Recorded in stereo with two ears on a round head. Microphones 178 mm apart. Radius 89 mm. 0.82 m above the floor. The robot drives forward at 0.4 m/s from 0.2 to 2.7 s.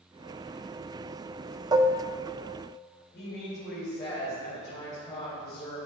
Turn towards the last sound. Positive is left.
turn(degrees=20)  # may be behind; listen again after turning